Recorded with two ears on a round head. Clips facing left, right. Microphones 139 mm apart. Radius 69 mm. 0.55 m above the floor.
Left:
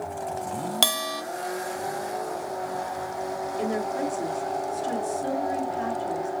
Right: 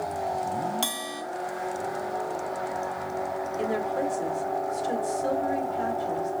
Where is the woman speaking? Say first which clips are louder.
Even; 30° left (ahead or behind), 1.9 m.